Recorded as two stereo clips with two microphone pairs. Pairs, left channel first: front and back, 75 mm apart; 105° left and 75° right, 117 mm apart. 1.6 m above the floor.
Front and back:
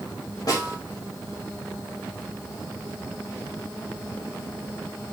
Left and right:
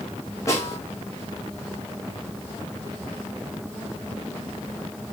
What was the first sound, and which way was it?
A snare drum, 40° left.